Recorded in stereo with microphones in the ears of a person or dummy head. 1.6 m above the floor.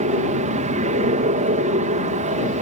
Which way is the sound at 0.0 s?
35° right (ahead or behind).